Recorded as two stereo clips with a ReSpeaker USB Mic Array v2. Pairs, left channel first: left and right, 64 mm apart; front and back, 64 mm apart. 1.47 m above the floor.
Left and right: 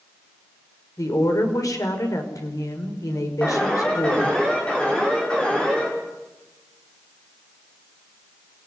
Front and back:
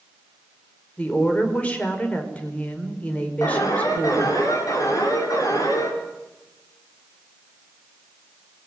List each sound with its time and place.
1.0 s a woman speaking: 65° left, 5.5 m
3.4 s an alarm: 15° left, 7.5 m